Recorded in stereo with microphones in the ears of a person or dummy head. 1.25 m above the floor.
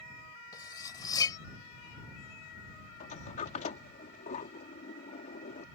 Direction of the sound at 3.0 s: 45° left (ahead or behind).